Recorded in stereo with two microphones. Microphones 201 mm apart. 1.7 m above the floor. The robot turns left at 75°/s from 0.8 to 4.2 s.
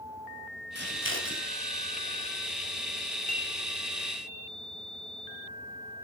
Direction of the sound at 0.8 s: 60° right (ahead or behind).